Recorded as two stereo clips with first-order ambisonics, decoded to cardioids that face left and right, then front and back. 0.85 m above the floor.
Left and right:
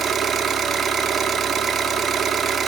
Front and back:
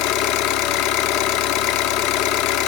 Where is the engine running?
20° right, 0.9 m.